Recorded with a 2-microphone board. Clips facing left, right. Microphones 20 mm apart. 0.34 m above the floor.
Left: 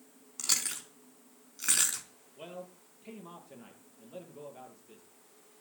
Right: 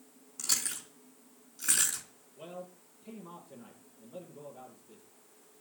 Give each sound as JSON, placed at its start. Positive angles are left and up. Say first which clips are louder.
{"t": 0.4, "sound": "chewing", "louder": "left 1 dB", "side_deg": 35, "distance_m": 4.0}
{"t": 2.4, "sound": "a man speaking", "louder": "even", "side_deg": 80, "distance_m": 8.0}